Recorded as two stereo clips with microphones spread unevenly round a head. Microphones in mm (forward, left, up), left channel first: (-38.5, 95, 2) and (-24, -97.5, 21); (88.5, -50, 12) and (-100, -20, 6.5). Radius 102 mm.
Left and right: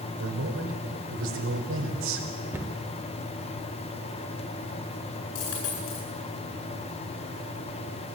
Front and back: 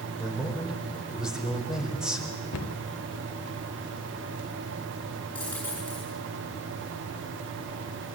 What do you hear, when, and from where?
0.2 s a man speaking: 100° right, 4.5 m
2.5 s a cupboard door: 5° right, 1.2 m
5.3 s a dropped coin: 75° left, 10 m